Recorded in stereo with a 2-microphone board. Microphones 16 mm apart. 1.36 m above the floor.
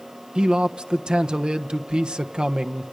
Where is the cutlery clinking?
No cutlery clinking in this recording.